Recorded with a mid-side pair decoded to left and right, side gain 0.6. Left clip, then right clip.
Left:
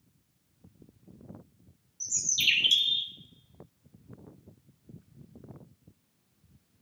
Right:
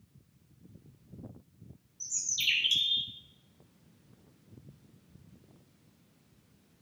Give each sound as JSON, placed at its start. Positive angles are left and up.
{"t": 2.0, "sound": "a bird", "azimuth_deg": 15, "distance_m": 0.6}